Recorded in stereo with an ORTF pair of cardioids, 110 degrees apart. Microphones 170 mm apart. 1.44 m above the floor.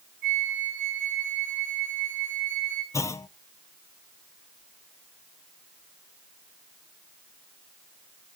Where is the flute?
60° right, 8 m.